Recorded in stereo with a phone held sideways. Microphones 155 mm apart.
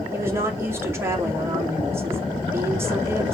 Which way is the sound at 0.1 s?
15° right (ahead or behind).